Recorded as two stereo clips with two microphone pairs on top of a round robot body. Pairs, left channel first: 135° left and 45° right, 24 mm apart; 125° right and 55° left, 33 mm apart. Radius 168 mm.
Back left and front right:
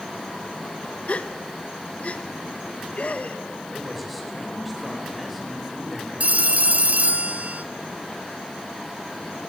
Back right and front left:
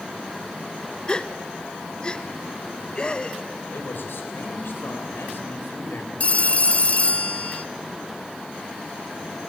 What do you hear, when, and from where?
1.1 s a gasp: 170° left, 1.0 m
3.7 s a man speaking: 140° right, 4 m
6.2 s a phone ringing: 80° right, 0.9 m